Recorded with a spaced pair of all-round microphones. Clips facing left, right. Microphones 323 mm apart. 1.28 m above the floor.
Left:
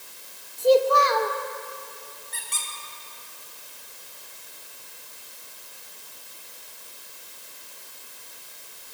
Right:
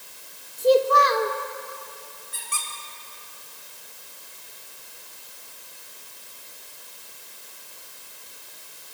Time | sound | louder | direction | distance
0.6 | a child speaking | even | 25° right (ahead or behind) | 2 m
2.3 | a squeak | right 2 dB | 10° right (ahead or behind) | 3.5 m